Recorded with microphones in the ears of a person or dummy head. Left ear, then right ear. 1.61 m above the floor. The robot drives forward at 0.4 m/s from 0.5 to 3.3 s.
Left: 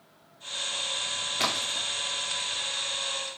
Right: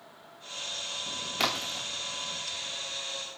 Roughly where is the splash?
Centre.